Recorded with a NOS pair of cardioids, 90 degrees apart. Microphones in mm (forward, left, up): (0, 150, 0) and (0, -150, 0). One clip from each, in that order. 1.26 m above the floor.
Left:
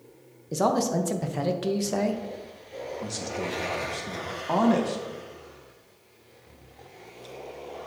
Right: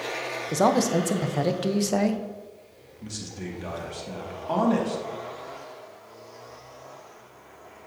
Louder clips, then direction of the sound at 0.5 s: Right 2 dB; 15° right.